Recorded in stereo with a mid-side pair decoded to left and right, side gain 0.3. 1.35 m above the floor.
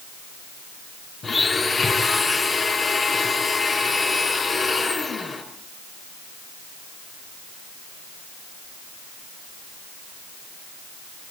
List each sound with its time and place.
1.2 s a blender: 50° left, 5.5 m